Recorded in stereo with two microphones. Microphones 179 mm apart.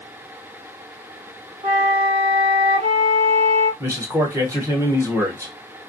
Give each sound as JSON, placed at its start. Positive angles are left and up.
{"t": 1.6, "sound": "a flute", "side_deg": -40, "distance_m": 1.9}
{"t": 3.8, "sound": "a man speaking", "side_deg": -15, "distance_m": 1.0}